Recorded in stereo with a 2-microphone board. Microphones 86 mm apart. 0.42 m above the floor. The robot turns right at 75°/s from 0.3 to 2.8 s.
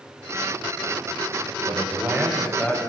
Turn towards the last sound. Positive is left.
turn(degrees=25)